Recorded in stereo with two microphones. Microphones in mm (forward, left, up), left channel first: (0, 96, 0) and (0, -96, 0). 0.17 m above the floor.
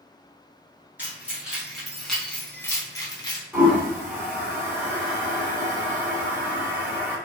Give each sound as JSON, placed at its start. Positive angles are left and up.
{"t": 1.0, "sound": "keys jangling", "side_deg": -10, "distance_m": 1.8}
{"t": 3.5, "sound": "a toilet flushing", "side_deg": -10, "distance_m": 1.7}